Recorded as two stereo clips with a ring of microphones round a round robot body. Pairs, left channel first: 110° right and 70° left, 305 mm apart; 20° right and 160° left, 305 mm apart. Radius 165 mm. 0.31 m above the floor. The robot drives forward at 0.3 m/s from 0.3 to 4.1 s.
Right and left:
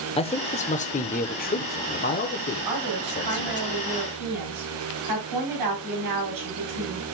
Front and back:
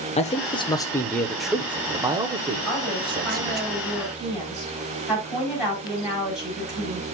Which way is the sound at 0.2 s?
65° right.